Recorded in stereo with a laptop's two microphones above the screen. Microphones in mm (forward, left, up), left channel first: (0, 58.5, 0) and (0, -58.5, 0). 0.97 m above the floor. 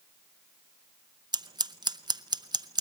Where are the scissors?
40° right (ahead or behind), 0.5 m.